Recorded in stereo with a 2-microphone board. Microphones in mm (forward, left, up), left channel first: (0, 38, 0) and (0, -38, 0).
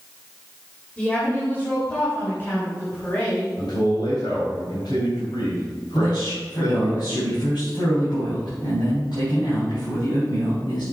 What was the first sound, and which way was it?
A woman speaking, 15° left (ahead or behind).